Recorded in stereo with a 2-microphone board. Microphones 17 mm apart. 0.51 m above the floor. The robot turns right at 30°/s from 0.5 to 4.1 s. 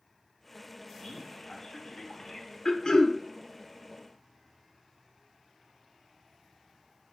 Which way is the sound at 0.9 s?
75° left.